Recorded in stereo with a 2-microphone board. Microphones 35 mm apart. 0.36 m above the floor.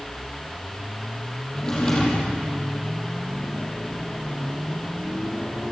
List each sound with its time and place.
1.5 s a drawer: 20° left (ahead or behind), 5.5 m